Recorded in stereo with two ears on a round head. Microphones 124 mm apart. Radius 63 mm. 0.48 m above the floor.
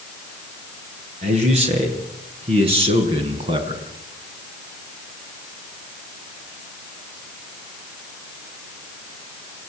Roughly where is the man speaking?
Right.